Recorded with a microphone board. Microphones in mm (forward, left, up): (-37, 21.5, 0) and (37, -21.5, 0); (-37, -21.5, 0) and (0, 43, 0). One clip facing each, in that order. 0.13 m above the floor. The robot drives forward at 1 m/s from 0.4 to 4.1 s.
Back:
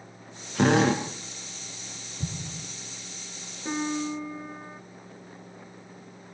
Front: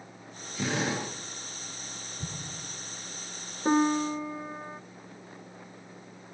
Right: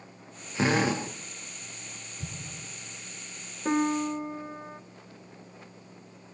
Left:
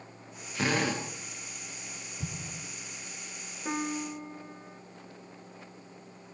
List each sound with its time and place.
0.6 s a drill: 175° left, 6 m
2.2 s an explosion: 95° left, 2 m; by 2.7 s 110° left, 2.5 m
3.6 s a piano: 55° right, 0.8 m; by 4.8 s 100° right, 0.7 m